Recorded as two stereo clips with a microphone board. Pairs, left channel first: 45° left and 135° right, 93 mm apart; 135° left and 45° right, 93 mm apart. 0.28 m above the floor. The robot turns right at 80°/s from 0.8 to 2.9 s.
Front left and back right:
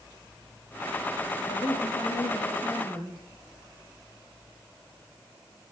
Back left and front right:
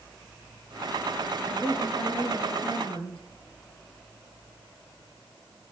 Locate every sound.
1.5 s a woman speaking: 15° left, 7.5 m; by 3.2 s 135° left, 7.5 m